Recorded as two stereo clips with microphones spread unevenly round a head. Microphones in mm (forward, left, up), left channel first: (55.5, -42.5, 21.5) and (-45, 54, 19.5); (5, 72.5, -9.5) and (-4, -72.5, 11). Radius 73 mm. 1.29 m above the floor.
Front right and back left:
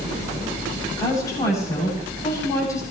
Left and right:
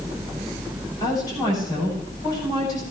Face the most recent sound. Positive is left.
turn(degrees=25)